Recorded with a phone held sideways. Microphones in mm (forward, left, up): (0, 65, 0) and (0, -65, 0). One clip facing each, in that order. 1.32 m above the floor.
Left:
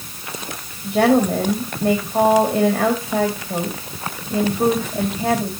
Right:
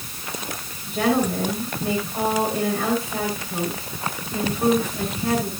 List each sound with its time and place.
0.8 s a woman speaking: 80° left, 2 m